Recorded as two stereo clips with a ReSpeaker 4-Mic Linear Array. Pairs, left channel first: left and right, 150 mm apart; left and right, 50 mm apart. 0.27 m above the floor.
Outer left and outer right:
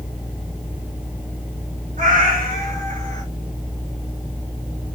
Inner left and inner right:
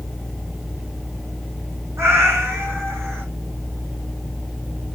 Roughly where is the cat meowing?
Right.